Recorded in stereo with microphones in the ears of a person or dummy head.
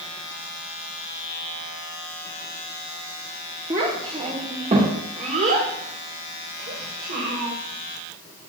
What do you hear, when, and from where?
3.7 s a child speaking: 25° right (ahead or behind), 1.7 m; by 7.5 s 55° right (ahead or behind), 3.5 m